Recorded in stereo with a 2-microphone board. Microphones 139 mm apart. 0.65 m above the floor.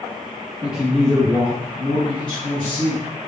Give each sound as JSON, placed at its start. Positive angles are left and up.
{"t": 0.6, "sound": "a man speaking", "side_deg": -10, "distance_m": 1.1}